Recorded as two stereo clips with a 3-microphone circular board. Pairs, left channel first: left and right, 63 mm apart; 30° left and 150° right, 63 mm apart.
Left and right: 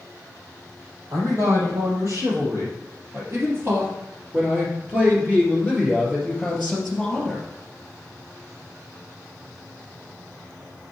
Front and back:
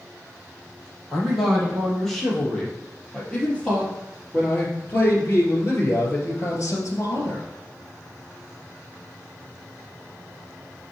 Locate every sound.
1.1 s a man speaking: 55° right, 4 m; by 7.5 s 5° left, 2.5 m